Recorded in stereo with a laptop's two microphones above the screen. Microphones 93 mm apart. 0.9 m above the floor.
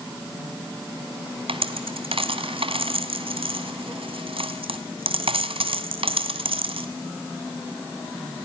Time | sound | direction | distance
1.5 | a dropped coin | 75° right (ahead or behind) | 2 m